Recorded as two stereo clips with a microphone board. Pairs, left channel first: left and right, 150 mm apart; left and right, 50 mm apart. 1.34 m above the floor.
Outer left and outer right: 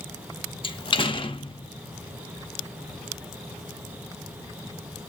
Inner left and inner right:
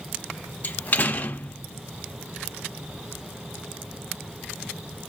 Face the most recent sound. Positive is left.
turn(degrees=35)  # may be behind; listen again after turning